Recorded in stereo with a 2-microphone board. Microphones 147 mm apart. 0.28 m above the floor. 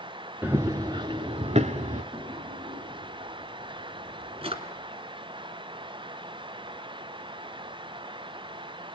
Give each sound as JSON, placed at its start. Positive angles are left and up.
{"t": 0.4, "sound": "running footsteps", "side_deg": -15, "distance_m": 1.7}
{"t": 2.1, "sound": "a drawer", "side_deg": -40, "distance_m": 1.9}